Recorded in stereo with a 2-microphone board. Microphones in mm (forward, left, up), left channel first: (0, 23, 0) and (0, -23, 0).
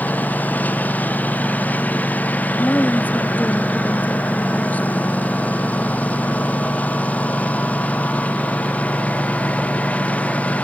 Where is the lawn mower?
40° left (ahead or behind); by 10.7 s 30° left (ahead or behind).